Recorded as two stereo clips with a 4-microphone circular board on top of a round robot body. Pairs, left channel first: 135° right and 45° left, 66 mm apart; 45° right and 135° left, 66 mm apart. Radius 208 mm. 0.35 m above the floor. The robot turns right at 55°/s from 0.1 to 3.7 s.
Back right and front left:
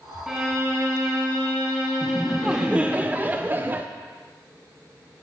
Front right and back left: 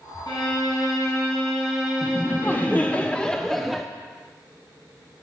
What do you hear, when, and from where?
0.3 s a violin: 35° right, 2.5 m; by 3.0 s 115° left, 2.5 m
2.0 s laughter: 50° right, 0.8 m; by 3.9 s 45° left, 0.8 m